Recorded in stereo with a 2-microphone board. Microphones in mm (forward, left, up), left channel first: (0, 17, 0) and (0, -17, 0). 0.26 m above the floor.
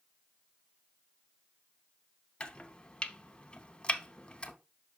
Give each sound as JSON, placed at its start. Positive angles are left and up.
{"t": 2.4, "sound": "chopping", "side_deg": 25, "distance_m": 0.6}